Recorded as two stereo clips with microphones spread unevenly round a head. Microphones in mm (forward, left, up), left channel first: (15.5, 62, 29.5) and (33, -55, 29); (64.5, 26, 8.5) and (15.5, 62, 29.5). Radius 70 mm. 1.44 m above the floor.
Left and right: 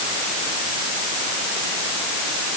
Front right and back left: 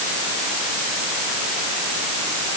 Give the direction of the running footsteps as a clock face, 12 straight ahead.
I don't hear running footsteps.